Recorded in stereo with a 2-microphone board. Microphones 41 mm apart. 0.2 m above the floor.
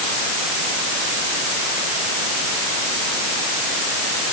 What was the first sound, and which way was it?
Only background noise.